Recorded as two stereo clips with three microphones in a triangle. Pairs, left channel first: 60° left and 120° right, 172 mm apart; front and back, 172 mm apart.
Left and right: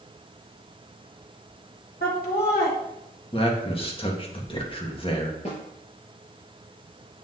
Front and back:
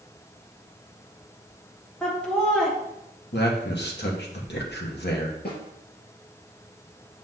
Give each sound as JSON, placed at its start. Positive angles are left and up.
{"t": 2.0, "sound": "laughter", "azimuth_deg": 85, "distance_m": 2.5}
{"t": 3.3, "sound": "a man speaking", "azimuth_deg": 0, "distance_m": 1.9}
{"t": 5.5, "sound": "a snare drum", "azimuth_deg": 15, "distance_m": 4.0}